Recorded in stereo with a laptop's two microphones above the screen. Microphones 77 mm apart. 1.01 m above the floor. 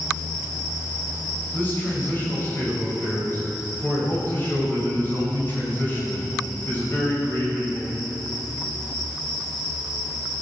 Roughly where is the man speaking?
Left.